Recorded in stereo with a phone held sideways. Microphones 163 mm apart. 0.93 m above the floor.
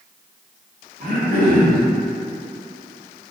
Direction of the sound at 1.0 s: 65° right (ahead or behind).